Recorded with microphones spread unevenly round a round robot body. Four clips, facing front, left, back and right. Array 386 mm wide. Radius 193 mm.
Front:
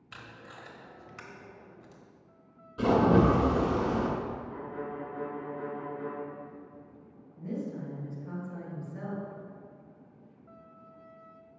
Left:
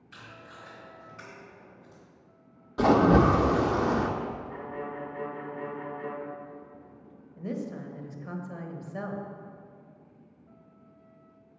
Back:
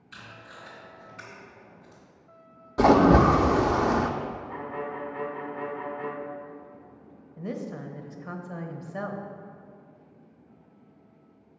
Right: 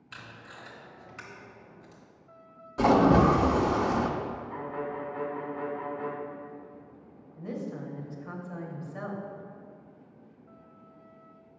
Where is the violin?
135° right, 1.4 m.